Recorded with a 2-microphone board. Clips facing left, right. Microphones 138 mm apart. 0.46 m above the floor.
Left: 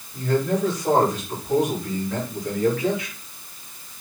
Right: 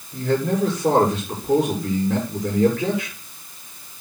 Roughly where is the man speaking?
Right.